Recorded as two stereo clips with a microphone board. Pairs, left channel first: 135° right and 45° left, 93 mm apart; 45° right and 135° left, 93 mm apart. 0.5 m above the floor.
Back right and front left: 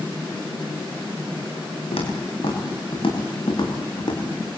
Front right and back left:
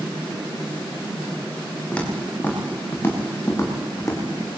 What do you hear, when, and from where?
1.9 s footsteps: 120° right, 9 m; by 4.5 s 100° right, 10 m